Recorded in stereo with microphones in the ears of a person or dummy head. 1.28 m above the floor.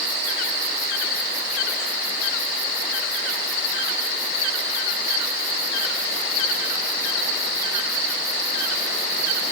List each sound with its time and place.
Only background noise.